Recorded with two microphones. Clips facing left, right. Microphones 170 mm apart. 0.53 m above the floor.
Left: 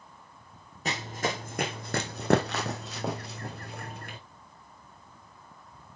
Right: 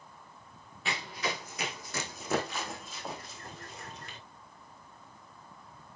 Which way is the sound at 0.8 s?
40° left (ahead or behind).